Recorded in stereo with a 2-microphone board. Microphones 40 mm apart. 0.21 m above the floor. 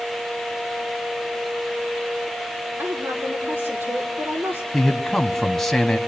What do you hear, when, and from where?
2.8 s a woman speaking: 60° right (ahead or behind), 6 m
4.7 s a man speaking: 5° left (ahead or behind), 1.6 m